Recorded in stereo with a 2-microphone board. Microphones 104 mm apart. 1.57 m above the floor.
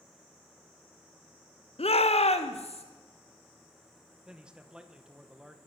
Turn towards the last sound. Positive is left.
turn(degrees=-10)  # may be behind; listen again after turning